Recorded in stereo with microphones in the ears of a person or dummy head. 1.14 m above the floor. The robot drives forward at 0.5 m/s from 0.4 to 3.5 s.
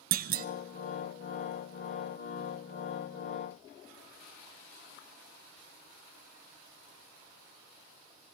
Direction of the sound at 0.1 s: 50° right (ahead or behind).